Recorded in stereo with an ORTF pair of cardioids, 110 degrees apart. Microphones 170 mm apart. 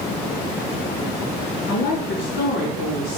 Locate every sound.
1.7 s a woman speaking: 65° left, 4 m; by 3.2 s 70° left, 4.5 m